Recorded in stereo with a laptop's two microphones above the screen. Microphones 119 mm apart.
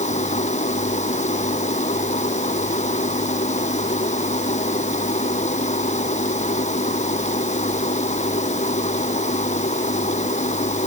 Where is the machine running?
80° left.